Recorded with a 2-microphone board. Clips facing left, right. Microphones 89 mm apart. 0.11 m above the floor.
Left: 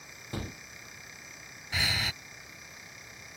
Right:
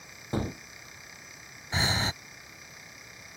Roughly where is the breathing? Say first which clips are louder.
Right 4 dB; right.